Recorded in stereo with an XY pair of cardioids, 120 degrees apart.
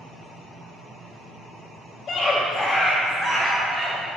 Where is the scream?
40° left, 1.3 m; by 4.0 s 10° right, 3.5 m.